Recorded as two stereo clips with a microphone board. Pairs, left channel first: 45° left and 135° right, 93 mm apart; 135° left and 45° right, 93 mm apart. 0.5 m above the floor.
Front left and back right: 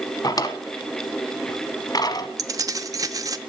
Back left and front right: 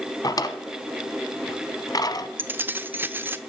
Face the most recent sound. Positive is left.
turn(degrees=-105)